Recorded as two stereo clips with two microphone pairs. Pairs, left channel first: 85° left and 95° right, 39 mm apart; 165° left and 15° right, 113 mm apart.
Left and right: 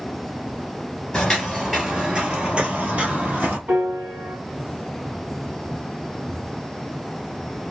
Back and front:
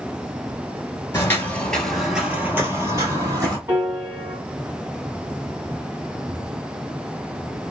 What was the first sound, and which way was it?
Footsteps, 160° left.